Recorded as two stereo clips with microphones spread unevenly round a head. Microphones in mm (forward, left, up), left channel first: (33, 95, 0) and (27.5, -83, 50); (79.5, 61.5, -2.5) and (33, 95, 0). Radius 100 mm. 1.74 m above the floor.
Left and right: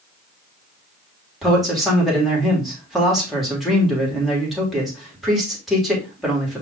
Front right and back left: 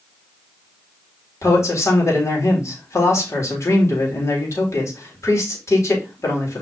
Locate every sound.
1.4 s a man speaking: 5° right, 4.5 m